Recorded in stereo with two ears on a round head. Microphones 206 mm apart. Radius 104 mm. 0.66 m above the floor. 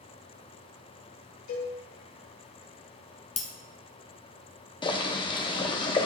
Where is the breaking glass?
30° left (ahead or behind), 1.2 m.